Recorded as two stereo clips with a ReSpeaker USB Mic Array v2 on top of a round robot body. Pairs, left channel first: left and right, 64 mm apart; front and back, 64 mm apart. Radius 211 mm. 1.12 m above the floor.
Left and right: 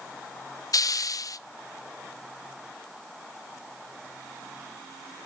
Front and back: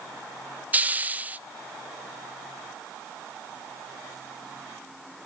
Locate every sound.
0.7 s a hiss: 115° left, 0.7 m